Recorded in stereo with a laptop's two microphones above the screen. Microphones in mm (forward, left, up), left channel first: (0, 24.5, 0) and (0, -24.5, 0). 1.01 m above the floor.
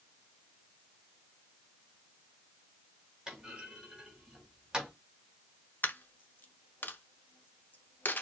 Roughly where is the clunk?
Centre.